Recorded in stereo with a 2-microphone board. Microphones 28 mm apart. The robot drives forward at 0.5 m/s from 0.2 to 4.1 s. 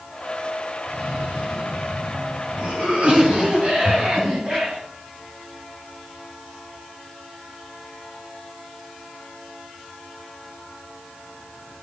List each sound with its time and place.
0.9 s a cough: 65° right (ahead or behind), 2.5 m; by 4.8 s 45° right (ahead or behind), 3.5 m
3.9 s breathing: 15° left (ahead or behind), 2.5 m